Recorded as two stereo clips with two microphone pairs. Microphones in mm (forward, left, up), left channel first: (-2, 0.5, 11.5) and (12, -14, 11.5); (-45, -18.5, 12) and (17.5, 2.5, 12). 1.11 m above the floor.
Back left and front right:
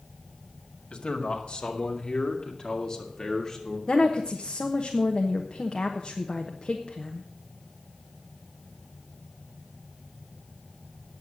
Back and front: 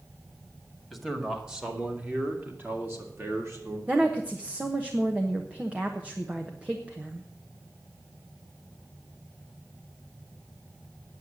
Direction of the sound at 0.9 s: 105° left.